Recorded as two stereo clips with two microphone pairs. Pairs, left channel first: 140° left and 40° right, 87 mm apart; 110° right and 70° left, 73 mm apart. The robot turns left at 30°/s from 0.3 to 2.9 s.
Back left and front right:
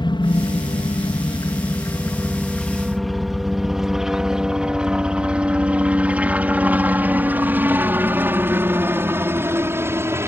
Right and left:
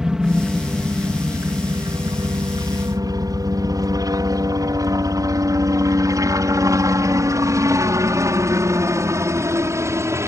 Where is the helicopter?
150° left; by 10.3 s 20° left.